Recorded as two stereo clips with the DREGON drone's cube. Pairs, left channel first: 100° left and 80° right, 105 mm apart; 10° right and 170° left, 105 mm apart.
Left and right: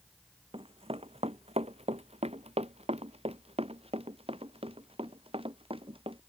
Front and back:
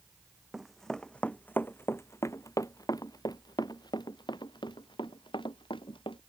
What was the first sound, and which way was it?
Running footsteps, 105° right.